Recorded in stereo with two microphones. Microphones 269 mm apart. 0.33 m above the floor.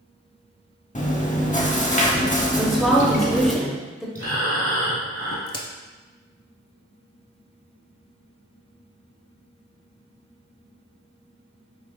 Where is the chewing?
30° left (ahead or behind), 0.6 m.